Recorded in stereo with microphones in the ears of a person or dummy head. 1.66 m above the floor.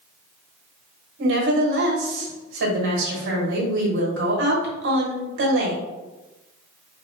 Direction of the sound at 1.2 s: 70° right (ahead or behind).